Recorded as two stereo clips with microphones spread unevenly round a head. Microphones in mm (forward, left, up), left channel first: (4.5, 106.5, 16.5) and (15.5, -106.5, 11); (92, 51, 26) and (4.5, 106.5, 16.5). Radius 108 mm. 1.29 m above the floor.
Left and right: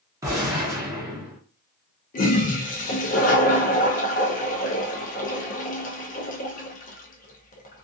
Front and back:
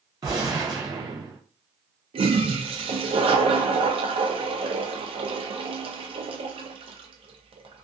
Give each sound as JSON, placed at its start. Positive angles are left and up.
{"t": 0.2, "sound": "a gunshot", "azimuth_deg": -160, "distance_m": 0.8}
{"t": 2.1, "sound": "a toilet flushing", "azimuth_deg": 145, "distance_m": 0.6}